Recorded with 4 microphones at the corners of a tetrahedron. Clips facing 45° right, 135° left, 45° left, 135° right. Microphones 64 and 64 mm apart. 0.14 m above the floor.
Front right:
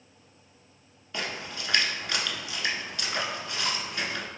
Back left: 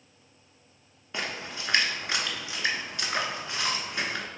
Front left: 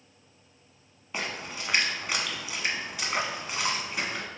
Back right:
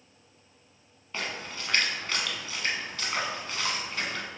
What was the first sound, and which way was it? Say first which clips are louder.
A splash: even, front left 1 dB; 105° left.